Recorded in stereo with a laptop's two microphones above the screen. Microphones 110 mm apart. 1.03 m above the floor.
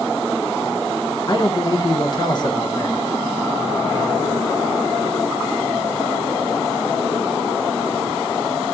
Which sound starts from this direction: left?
A man speaking, at 1.3 s.